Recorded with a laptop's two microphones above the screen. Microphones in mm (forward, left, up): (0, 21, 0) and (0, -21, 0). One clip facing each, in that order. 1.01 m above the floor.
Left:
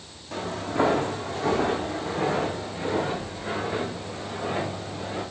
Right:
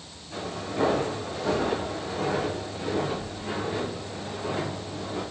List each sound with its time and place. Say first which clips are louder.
0.3 s footsteps: left 4 dB; 60° left (ahead or behind), 3 m; by 5.2 s 65° left (ahead or behind), 6 m